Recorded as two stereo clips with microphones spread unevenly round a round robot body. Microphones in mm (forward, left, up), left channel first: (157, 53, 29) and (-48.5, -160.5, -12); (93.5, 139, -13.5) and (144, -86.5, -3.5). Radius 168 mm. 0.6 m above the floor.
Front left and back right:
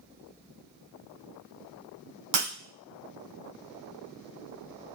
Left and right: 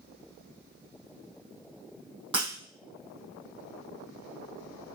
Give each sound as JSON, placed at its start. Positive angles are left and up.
{"t": 2.3, "sound": "breaking glass", "azimuth_deg": -155, "distance_m": 2.5}